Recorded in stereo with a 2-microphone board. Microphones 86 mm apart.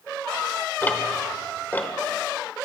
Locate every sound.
0.8 s ticking: 20° left (ahead or behind), 1.0 m